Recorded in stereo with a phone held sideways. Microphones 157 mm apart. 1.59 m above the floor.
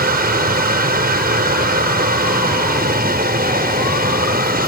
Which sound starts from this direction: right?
A machine running, at 0.0 s.